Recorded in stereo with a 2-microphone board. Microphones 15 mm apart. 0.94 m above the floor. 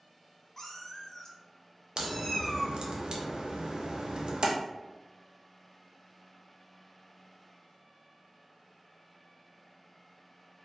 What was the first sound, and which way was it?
A cat meowing, 30° left (ahead or behind).